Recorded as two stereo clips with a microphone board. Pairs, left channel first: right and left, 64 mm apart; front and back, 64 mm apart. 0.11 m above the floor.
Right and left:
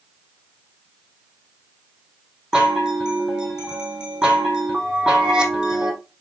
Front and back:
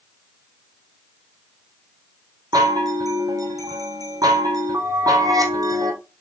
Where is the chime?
170° left, 1.5 m.